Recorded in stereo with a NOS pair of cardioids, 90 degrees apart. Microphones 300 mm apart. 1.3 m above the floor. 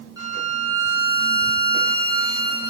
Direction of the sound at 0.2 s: 10° right.